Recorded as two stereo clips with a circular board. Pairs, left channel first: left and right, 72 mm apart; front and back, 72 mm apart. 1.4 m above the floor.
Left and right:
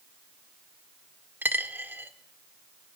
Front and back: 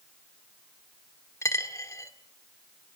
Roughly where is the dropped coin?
Ahead right.